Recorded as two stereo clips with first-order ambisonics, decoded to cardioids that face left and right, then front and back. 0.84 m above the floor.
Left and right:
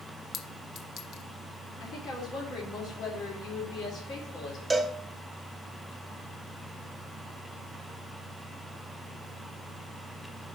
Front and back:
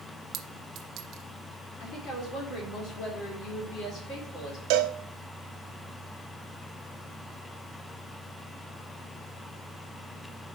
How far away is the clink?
About 0.6 m.